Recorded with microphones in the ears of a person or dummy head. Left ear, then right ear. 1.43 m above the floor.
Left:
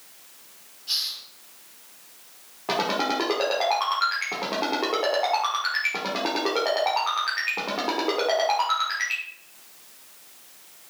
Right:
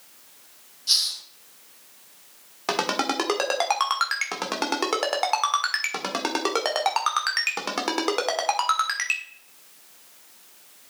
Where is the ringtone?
55° right (ahead or behind), 1.6 m.